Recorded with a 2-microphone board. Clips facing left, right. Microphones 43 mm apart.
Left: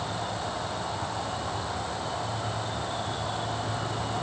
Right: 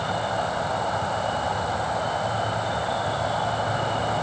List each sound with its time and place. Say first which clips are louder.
0.0 s an insect: right 7 dB; 65° right (ahead or behind), 2.5 m